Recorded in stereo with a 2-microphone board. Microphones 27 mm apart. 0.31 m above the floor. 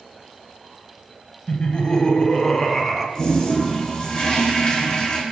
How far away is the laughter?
About 1.0 m.